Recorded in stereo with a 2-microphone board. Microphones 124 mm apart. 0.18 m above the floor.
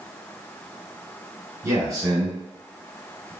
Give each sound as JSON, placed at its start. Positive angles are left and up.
{"t": 1.6, "sound": "a man speaking", "side_deg": -25, "distance_m": 1.7}